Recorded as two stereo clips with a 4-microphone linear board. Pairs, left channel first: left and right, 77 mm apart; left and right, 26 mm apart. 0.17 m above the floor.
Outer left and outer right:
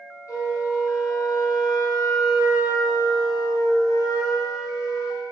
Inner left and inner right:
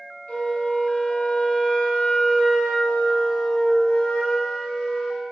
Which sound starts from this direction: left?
A flute, at 0.3 s.